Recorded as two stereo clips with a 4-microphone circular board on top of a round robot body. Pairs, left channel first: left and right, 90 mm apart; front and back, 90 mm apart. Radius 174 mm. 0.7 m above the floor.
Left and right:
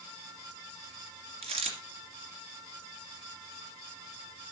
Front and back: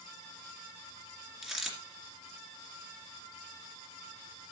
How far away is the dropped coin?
About 2.5 m.